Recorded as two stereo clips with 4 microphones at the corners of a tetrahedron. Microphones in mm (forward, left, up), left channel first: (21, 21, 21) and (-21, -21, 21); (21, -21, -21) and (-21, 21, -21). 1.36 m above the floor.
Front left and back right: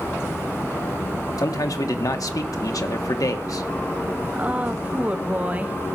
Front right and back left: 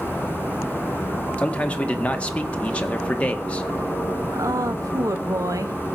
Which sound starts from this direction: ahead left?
A man speaking, at 1.4 s.